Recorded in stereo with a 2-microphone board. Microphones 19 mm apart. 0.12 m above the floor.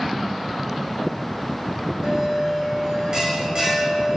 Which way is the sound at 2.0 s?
40° right (ahead or behind).